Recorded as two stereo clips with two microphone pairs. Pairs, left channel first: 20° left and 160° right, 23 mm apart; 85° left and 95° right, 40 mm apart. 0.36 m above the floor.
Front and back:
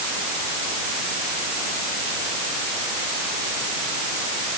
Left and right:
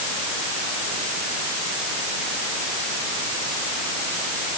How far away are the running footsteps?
No running footsteps in this recording.